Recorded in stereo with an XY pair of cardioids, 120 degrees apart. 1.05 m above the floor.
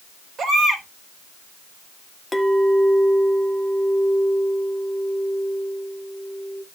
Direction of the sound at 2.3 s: 10° left.